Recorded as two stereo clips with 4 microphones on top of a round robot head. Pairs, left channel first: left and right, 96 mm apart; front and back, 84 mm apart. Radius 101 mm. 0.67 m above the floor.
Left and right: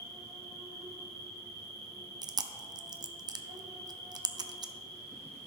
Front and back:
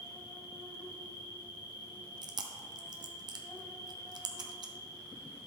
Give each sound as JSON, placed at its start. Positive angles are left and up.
{"t": 0.0, "sound": "an insect", "azimuth_deg": -65, "distance_m": 3.0}
{"t": 2.2, "sound": "chewing", "azimuth_deg": -140, "distance_m": 0.8}